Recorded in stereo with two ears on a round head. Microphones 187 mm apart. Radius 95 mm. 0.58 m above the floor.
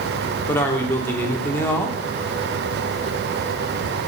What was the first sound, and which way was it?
A man speaking, 10° left (ahead or behind).